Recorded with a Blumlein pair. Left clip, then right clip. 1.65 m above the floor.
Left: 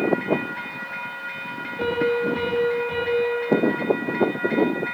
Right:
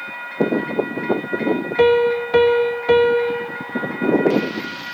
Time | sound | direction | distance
1.8 | a piano | 40° right | 2 m